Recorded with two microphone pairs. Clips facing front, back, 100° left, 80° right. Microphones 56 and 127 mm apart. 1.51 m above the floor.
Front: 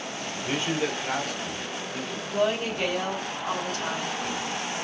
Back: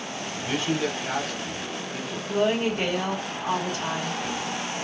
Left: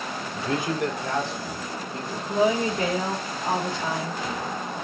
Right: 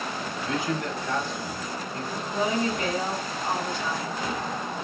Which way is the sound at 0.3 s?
60° left.